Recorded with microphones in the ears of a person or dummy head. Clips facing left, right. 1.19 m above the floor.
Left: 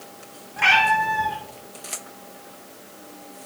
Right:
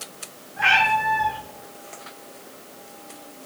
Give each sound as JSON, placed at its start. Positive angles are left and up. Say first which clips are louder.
{"t": 0.6, "sound": "a cat meowing", "louder": "left 1 dB", "side_deg": 60, "distance_m": 3.5}